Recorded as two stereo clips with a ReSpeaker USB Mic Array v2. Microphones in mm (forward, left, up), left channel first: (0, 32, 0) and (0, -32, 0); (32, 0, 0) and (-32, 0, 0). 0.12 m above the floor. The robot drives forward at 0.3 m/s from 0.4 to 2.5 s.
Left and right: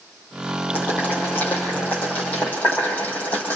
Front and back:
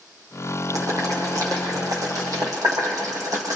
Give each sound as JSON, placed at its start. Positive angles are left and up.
{"t": 0.7, "sound": "boiling", "azimuth_deg": 155, "distance_m": 5.5}